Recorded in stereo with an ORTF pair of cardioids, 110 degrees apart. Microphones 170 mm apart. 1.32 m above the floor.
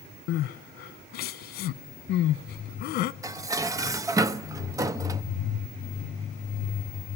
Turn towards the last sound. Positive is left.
turn(degrees=-20)